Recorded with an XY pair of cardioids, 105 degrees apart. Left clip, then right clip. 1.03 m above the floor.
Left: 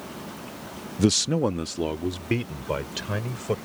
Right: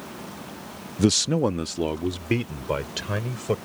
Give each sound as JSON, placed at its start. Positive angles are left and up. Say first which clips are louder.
{"t": 1.0, "sound": "a man speaking", "louder": "right 1 dB", "azimuth_deg": -5}